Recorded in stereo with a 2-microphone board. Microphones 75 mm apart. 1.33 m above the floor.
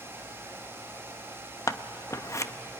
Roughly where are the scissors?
Left.